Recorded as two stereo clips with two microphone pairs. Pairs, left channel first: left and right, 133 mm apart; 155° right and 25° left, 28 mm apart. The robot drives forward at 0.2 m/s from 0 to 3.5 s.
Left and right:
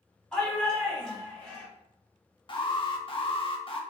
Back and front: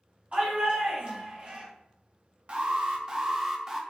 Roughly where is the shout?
Ahead.